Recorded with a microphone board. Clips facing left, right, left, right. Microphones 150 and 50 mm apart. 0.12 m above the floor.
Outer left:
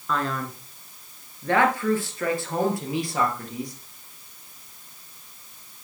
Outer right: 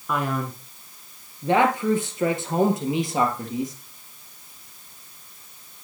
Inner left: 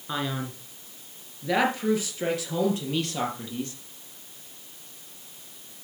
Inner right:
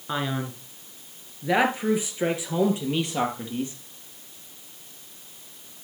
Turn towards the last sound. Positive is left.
turn(degrees=-20)  # may be behind; listen again after turning